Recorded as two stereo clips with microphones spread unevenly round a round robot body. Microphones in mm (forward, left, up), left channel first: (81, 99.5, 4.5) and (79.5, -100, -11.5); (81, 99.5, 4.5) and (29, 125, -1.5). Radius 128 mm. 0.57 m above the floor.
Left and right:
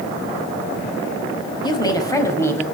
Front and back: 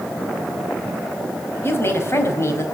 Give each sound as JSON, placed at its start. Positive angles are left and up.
{"t": 1.6, "sound": "a woman speaking", "azimuth_deg": 20, "distance_m": 4.5}